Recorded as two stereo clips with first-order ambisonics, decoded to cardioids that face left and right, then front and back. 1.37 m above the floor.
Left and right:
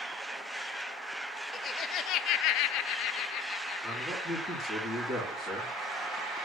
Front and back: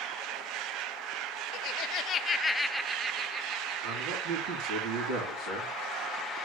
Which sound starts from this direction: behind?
A man speaking, at 3.8 s.